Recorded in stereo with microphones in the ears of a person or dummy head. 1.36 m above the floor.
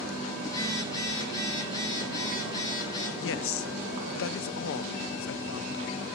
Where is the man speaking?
65° left (ahead or behind), 0.6 m.